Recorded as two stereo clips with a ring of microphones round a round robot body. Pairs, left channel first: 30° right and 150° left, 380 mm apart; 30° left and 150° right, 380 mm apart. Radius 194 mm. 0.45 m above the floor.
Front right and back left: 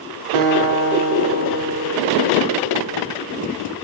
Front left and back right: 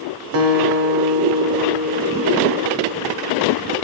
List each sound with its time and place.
0.3 s a guitar: 160° left, 0.9 m